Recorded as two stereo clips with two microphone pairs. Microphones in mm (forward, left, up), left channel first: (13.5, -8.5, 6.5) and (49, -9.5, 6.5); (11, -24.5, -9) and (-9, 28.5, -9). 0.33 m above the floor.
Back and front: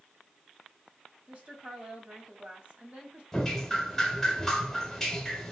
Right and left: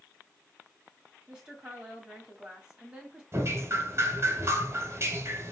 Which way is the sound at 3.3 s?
100° left.